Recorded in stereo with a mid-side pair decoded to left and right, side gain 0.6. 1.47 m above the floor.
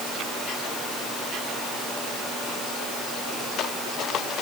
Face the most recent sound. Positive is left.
No sound to turn to.